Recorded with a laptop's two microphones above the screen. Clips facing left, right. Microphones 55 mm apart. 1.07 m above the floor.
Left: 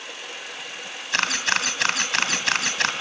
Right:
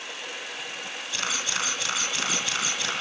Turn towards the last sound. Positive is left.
turn(degrees=65)  # may be behind; listen again after turning